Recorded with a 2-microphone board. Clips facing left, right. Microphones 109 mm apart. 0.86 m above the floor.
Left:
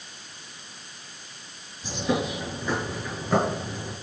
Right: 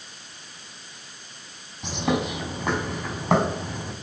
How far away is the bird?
About 4 m.